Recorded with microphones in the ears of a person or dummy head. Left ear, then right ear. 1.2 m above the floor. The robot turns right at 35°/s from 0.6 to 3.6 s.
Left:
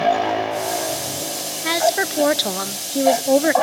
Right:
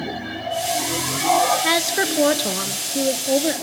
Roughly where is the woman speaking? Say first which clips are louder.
Left 1 dB; ahead.